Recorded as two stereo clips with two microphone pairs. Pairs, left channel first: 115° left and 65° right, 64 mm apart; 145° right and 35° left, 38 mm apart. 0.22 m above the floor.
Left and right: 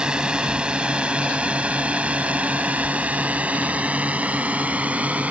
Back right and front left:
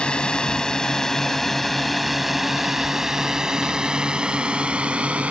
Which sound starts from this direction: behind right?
A drone, at 0.0 s.